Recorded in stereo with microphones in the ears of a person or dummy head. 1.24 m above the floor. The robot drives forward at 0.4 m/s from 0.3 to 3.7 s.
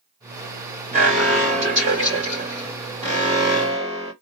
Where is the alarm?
35° right (ahead or behind), 2.5 m; by 4.1 s 25° right (ahead or behind), 3 m.